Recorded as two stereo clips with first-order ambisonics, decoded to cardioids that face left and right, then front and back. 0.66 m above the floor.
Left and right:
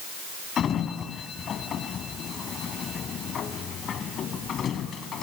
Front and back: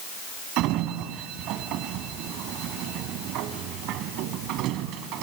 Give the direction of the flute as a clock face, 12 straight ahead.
No flute in this recording.